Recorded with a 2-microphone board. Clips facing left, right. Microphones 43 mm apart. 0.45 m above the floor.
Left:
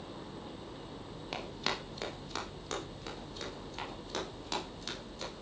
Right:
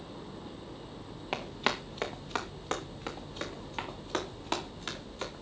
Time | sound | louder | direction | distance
1.3 | running footsteps | right 5 dB | 30° right (ahead or behind) | 2.5 m